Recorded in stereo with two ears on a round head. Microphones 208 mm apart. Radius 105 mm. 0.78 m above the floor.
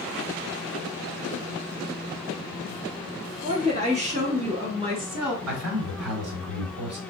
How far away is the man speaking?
About 2.5 m.